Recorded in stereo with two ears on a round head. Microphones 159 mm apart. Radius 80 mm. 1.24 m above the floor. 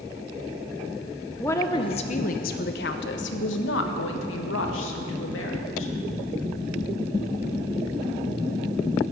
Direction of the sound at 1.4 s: 10° left (ahead or behind).